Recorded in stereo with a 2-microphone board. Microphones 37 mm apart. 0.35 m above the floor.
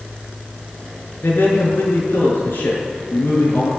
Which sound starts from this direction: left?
A man speaking, at 1.2 s.